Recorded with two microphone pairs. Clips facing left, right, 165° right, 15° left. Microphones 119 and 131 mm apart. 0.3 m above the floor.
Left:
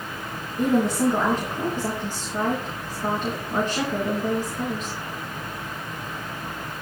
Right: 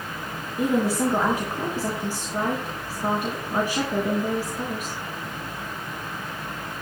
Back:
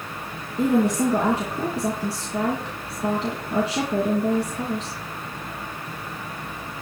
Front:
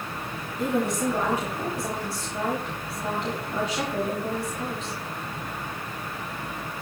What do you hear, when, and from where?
0.6 s a woman speaking: 170° right, 3 m